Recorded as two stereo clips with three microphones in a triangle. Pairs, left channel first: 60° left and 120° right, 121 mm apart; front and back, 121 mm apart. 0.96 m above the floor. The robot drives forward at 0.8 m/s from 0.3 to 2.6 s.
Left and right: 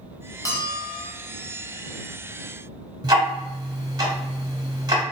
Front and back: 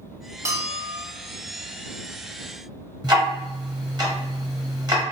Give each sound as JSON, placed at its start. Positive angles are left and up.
{"t": 0.5, "sound": "a bell", "azimuth_deg": 115, "distance_m": 0.5}
{"t": 3.0, "sound": "ticking", "azimuth_deg": -150, "distance_m": 0.8}